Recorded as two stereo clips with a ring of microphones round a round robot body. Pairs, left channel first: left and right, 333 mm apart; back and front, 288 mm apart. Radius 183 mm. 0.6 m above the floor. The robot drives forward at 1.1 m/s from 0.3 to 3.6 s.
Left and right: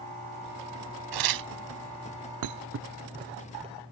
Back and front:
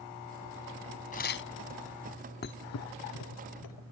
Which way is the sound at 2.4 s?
120° right.